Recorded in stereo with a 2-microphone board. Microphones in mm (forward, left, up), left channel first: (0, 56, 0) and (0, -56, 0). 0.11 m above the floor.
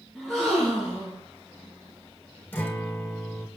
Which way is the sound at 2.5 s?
20° left (ahead or behind).